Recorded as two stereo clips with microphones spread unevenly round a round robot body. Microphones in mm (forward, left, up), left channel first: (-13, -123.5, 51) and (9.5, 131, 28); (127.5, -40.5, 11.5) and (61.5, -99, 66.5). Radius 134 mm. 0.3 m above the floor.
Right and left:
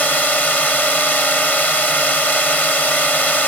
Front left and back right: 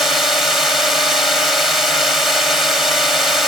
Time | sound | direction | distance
0.0 | a drone | 10° right | ?